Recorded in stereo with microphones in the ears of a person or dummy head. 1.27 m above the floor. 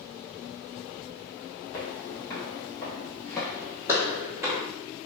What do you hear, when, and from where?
1.7 s footsteps: 15° left (ahead or behind), 1.8 m; by 4.6 s 15° right (ahead or behind), 1.3 m